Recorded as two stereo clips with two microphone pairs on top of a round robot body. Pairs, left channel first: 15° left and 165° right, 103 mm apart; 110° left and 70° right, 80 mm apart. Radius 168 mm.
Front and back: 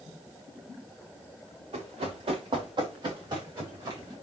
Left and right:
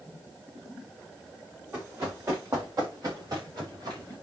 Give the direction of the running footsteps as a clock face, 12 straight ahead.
4 o'clock.